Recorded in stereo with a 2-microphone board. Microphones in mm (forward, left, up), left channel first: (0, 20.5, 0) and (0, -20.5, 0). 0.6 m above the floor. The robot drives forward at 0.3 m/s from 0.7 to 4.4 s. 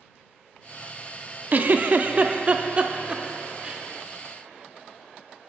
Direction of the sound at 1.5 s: 45° right (ahead or behind).